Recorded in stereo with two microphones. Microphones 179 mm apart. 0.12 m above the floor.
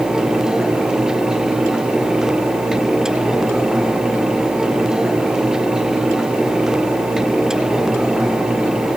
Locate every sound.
Only background noise.